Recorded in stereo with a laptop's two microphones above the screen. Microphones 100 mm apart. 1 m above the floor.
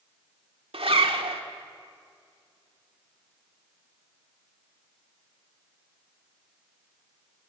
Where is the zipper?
75° right (ahead or behind), 1.6 m.